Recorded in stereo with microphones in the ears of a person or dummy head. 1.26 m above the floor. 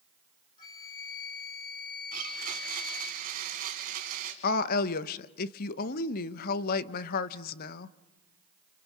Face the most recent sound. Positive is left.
turn(degrees=55)  # may be behind; listen again after turning